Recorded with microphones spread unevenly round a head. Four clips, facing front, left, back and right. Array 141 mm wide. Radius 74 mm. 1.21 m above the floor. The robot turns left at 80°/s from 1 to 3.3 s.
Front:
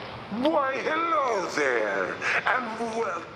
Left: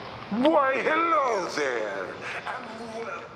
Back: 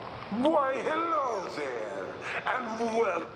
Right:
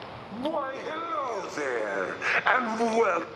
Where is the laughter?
70° left, 0.6 m; by 3.3 s 110° right, 0.6 m.